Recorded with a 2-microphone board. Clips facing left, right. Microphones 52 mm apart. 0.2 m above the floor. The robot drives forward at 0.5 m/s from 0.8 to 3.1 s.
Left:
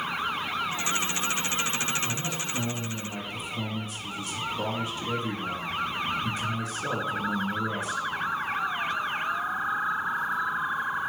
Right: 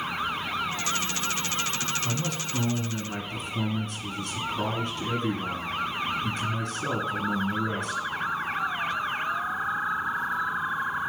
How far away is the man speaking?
About 1.6 m.